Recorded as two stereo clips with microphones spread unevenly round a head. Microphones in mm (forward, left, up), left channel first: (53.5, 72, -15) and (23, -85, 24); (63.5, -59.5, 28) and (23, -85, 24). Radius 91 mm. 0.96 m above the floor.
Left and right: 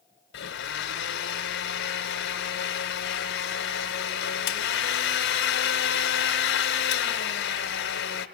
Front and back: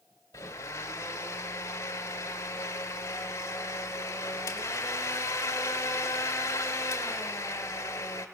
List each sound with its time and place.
0.3 s a blender: 75° left, 1.8 m